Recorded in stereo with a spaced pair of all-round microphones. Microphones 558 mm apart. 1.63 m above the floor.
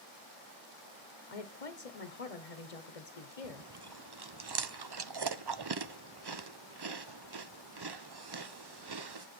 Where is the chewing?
45° right (ahead or behind), 0.6 m.